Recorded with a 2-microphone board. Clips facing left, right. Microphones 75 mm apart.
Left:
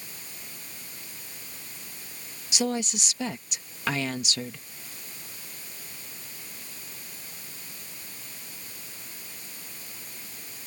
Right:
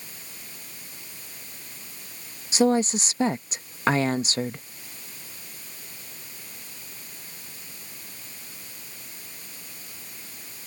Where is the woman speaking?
35° right (ahead or behind).